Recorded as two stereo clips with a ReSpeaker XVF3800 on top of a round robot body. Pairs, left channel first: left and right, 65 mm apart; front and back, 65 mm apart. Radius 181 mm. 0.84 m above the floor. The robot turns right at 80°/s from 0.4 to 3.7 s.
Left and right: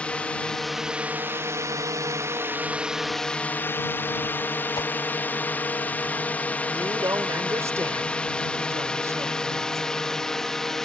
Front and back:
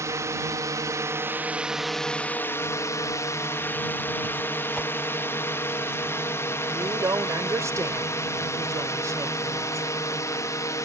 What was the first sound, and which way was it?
A drone, 160° left.